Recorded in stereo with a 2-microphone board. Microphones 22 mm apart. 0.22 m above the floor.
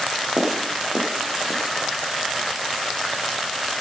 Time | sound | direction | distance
0.4 | footsteps | 55° right (ahead or behind) | 5 m